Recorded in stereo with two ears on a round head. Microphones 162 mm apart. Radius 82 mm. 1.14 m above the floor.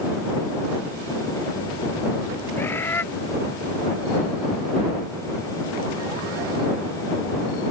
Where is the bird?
10° left (ahead or behind).